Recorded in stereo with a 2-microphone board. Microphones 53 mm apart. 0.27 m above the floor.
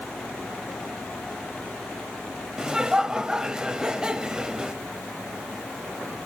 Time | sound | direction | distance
2.6 | laughter | 10° right (ahead or behind) | 1.0 m